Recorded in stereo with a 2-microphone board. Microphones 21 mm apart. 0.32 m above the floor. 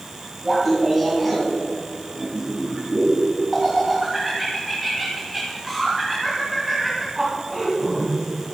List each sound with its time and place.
0.4 s laughter: 10° right (ahead or behind), 2.0 m